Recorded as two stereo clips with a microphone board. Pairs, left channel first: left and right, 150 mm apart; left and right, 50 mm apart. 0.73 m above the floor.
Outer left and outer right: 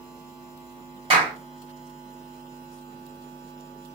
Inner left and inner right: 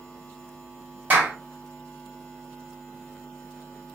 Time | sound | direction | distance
1.1 | a clap | 40° right (ahead or behind) | 1.5 m